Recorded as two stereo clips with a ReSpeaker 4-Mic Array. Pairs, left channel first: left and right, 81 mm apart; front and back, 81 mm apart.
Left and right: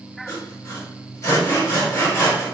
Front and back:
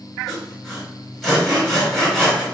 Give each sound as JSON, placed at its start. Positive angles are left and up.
{"t": 0.3, "sound": "sawing", "azimuth_deg": 85, "distance_m": 1.5}